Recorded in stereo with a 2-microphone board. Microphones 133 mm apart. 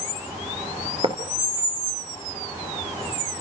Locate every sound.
1.0 s writing: 40° right (ahead or behind), 2.5 m